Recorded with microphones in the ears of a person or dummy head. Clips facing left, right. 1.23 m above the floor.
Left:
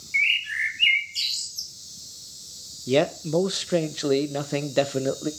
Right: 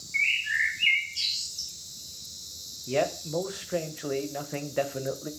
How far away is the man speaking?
About 0.7 m.